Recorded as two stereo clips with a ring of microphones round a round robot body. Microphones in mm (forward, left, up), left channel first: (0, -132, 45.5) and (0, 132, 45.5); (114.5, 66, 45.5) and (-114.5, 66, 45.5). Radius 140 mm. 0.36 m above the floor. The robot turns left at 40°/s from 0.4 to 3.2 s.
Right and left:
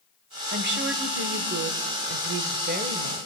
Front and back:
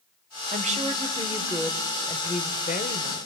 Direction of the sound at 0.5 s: 135° left.